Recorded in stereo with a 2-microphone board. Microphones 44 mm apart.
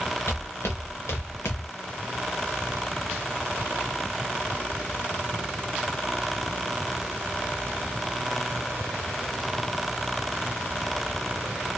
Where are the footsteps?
60° left (ahead or behind), 1.4 m; by 1.7 s 85° left, 1.0 m.